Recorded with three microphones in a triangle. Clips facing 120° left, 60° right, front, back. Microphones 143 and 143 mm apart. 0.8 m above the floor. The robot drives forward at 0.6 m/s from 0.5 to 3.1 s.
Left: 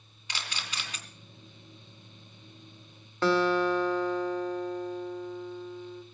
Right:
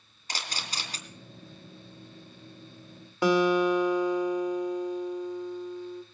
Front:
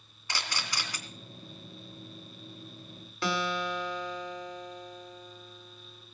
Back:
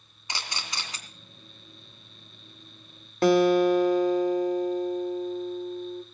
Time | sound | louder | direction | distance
0.3 | a camera shutter | right 2 dB, even | 105° right | 3 m
3.2 | a guitar | right 2 dB, back 13 dB | 135° right | 1.5 m